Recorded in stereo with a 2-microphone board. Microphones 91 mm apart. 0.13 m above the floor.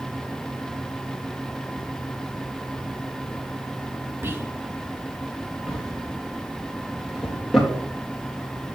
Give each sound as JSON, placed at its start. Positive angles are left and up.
{"t": 4.2, "sound": "whispering", "side_deg": -25, "distance_m": 1.2}
{"t": 5.7, "sound": "a drawer", "side_deg": -5, "distance_m": 3.5}